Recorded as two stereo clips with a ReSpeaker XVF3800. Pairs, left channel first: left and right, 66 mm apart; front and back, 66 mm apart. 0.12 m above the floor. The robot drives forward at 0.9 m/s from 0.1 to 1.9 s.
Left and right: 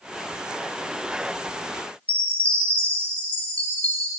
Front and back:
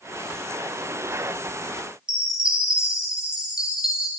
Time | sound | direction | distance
2.1 | a chime | 120° left | 0.7 m